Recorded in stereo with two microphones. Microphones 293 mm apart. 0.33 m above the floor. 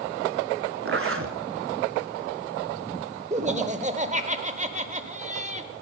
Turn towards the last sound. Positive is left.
turn(degrees=-25)  # may be behind; listen again after turning